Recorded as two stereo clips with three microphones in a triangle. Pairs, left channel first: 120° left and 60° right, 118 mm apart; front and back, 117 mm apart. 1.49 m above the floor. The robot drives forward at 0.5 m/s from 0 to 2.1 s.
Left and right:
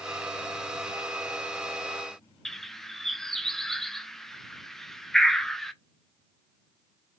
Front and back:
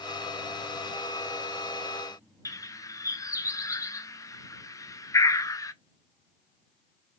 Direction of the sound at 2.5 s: 35° left.